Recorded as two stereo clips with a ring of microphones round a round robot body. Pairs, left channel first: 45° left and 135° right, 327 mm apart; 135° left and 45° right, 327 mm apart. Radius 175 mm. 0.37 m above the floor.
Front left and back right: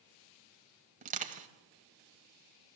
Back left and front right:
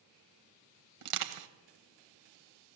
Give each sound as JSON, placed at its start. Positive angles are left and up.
{"t": 1.0, "sound": "crushing", "azimuth_deg": -70, "distance_m": 1.6}